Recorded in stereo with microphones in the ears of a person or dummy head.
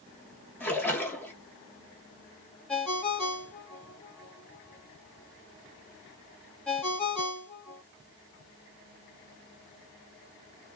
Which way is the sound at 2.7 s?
5° left (ahead or behind).